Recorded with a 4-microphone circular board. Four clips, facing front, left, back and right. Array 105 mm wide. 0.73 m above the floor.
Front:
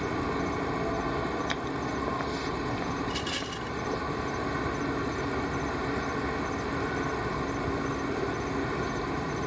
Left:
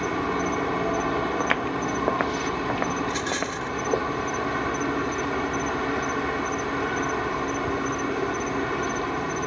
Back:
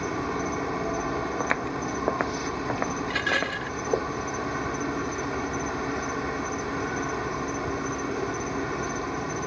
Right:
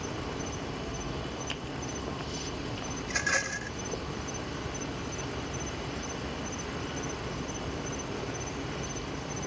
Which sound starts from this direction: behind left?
Footsteps, at 1.4 s.